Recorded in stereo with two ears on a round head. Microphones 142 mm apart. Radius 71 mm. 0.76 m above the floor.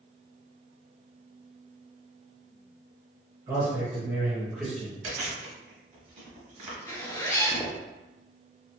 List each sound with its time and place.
3.5 s a man speaking: 20° right (ahead or behind), 1.4 m; by 4.9 s 5° left (ahead or behind), 0.9 m
5.0 s chewing: 45° right (ahead or behind), 1.1 m
6.9 s a zipper: 20° left (ahead or behind), 0.6 m